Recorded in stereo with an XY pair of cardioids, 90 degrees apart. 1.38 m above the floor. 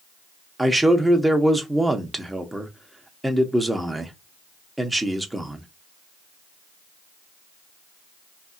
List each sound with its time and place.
0.6 s a man speaking: 10° right, 1.0 m